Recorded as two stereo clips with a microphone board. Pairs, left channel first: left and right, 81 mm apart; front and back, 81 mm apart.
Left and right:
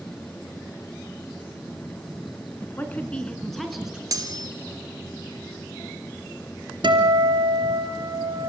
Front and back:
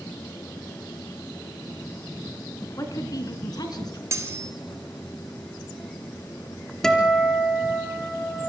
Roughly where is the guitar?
Right.